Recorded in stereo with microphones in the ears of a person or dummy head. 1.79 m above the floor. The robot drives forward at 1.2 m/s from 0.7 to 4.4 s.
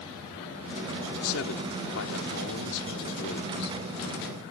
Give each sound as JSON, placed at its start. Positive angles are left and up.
{"t": 1.2, "sound": "a man speaking", "side_deg": 85}